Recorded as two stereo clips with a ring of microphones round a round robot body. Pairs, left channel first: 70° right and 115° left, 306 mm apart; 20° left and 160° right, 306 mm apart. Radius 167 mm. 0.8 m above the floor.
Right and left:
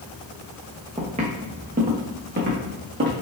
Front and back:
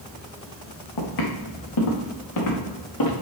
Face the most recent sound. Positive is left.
turn(degrees=60)